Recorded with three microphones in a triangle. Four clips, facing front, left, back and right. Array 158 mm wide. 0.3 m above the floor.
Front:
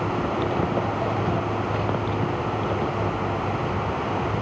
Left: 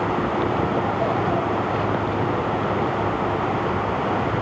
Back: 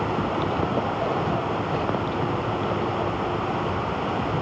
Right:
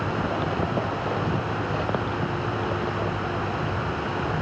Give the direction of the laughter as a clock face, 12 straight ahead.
No laughter in this recording.